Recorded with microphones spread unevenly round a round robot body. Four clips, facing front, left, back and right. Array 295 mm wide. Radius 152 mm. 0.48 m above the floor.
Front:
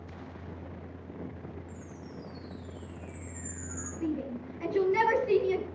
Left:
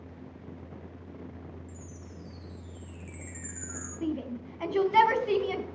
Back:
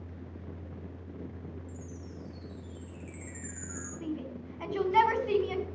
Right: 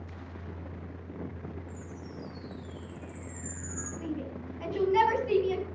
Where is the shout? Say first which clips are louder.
Left 5 dB, front 5 dB; 80° left, 3.5 m.